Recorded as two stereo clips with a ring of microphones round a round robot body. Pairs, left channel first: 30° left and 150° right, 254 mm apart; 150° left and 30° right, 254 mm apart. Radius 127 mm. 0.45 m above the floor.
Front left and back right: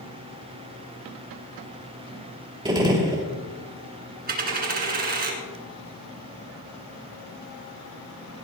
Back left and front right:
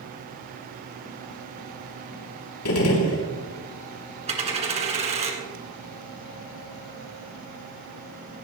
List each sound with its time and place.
2.6 s a gunshot: 140° left, 2.5 m
4.3 s a dropped coin: 95° right, 2.5 m